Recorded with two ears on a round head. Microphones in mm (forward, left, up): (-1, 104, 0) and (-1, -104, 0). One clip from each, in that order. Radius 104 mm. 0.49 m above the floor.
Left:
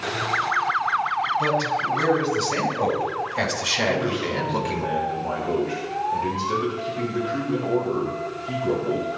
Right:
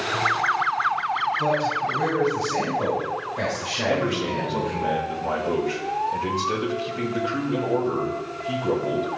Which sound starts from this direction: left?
A man speaking, at 1.4 s.